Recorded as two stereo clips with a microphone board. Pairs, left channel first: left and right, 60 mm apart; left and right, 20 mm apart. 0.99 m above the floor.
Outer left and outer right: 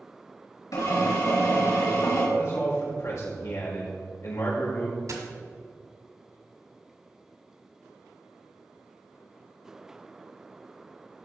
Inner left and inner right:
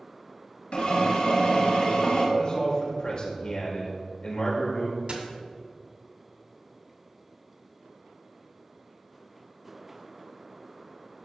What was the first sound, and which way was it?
A drill, 75° left (ahead or behind).